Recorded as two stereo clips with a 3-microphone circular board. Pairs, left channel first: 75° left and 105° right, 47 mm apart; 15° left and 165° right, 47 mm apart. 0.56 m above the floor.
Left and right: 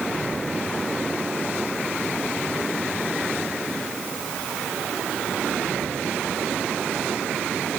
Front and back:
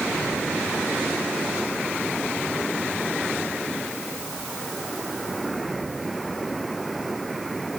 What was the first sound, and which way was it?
Only background noise.